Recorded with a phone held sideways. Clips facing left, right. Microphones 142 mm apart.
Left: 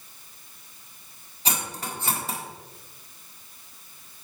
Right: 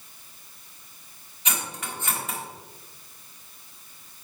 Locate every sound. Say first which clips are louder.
1.4 s cutlery clinking: left 2 dB; 35° left (ahead or behind), 1.4 m